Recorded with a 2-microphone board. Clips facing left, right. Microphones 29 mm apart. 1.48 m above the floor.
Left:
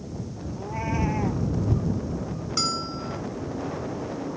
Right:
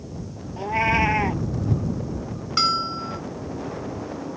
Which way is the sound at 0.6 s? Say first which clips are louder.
Right 9 dB; 60° right (ahead or behind).